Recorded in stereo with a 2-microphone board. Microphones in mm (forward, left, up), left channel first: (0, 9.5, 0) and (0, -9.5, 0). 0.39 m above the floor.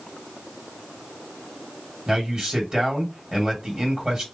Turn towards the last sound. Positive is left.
turn(degrees=-40)  # may be behind; listen again after turning